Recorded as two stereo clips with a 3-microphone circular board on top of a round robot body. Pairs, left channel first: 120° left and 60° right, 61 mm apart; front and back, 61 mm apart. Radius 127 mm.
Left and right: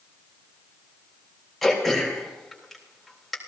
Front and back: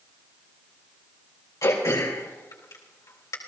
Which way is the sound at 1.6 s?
30° left.